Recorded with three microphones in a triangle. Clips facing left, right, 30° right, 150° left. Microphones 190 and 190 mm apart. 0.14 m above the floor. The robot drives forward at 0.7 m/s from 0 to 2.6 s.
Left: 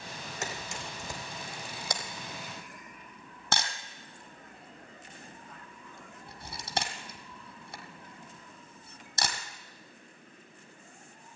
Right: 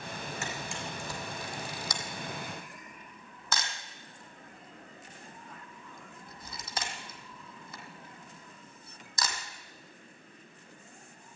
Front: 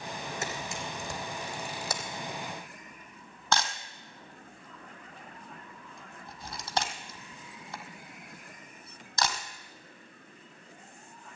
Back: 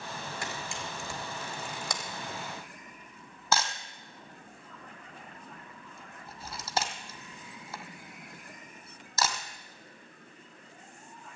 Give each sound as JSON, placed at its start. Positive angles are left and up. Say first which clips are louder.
{"t": 0.4, "sound": "a camera shutter", "louder": "right 1 dB, front 2 dB", "azimuth_deg": 40, "distance_m": 3.0}